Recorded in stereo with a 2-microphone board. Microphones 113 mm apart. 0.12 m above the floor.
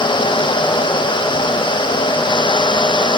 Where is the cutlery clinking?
No cutlery clinking in this recording.